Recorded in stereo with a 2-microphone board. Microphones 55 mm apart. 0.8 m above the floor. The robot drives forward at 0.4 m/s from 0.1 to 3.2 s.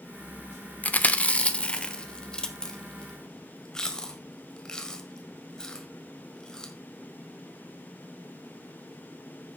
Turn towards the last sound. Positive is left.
turn(degrees=15)  # may be behind; listen again after turning